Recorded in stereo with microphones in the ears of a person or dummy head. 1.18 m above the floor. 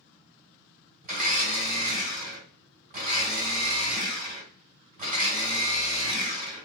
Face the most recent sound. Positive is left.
turn(degrees=-40)  # may be behind; listen again after turning